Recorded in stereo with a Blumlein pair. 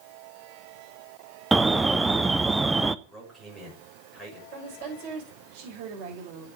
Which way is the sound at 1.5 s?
10° right.